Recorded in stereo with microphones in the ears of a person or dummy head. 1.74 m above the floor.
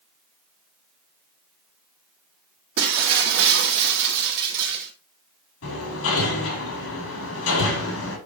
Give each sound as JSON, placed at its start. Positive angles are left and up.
{"t": 2.8, "sound": "breaking glass", "side_deg": -60, "distance_m": 2.5}
{"t": 5.6, "sound": "hammering", "side_deg": 80, "distance_m": 5.0}